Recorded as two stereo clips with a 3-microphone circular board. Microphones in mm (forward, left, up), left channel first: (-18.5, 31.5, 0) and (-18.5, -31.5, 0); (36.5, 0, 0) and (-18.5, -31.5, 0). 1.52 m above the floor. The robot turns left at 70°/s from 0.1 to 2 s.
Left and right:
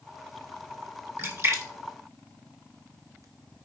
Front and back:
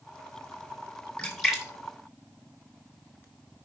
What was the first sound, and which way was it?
A splash, 40° right.